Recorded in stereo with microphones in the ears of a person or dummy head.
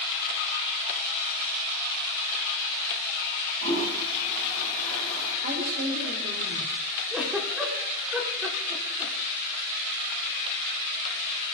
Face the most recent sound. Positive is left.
turn(degrees=-5)  # may be behind; listen again after turning